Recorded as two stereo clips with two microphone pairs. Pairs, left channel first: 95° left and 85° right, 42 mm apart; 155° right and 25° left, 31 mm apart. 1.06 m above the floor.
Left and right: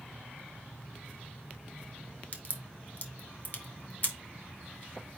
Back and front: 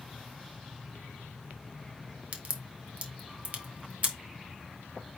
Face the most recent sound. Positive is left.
turn(degrees=50)